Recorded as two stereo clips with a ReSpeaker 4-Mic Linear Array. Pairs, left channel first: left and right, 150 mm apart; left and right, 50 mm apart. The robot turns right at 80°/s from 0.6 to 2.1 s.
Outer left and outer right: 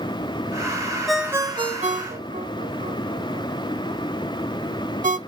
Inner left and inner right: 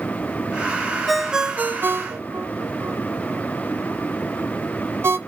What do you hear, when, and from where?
1.1 s a ringtone: 5° left (ahead or behind), 0.7 m; by 5.2 s 60° right (ahead or behind), 0.7 m